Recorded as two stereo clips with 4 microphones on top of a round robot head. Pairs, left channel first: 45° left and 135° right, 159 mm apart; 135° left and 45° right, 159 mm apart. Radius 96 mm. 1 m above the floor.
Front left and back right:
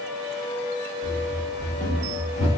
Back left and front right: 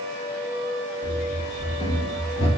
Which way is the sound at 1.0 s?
175° left.